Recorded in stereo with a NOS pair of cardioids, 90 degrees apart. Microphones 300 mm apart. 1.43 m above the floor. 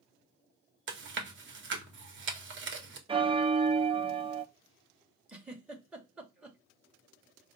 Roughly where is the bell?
Ahead.